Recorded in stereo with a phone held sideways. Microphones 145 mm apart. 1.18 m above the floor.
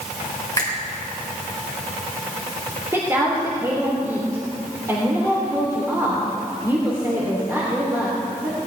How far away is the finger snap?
About 4 m.